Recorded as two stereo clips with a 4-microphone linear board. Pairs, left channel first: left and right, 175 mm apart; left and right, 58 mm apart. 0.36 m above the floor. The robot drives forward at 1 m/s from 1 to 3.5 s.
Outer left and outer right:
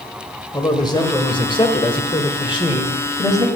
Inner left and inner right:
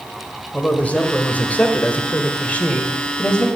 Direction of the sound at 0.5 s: 25° left (ahead or behind).